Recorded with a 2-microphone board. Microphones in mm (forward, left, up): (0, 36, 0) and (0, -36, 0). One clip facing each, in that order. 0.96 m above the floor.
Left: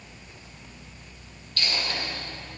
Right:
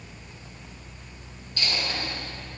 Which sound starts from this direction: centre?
A dropped coin, at 1.6 s.